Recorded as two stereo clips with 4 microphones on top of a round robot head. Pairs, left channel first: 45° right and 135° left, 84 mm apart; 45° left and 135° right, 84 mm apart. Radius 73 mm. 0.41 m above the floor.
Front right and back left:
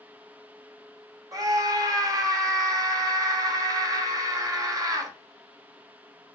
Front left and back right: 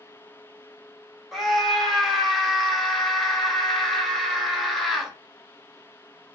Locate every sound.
1.3 s a scream: 135° left, 1.3 m